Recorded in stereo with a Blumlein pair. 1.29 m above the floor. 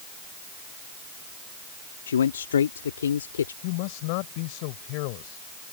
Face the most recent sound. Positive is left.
turn(degrees=45)